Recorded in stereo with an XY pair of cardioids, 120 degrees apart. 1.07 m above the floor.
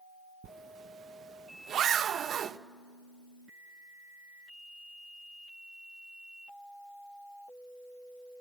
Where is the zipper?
50° right, 0.8 m.